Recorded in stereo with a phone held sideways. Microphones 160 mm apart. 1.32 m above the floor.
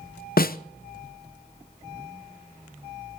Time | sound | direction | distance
0.4 | a snare drum | 65° left (ahead or behind) | 0.6 m